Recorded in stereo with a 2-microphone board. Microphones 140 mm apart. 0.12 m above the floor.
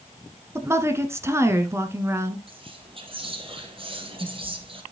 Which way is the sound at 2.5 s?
40° right (ahead or behind).